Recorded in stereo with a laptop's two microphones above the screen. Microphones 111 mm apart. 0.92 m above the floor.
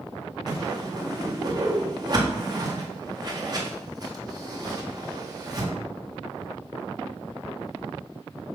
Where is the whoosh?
40° right (ahead or behind), 1.9 m.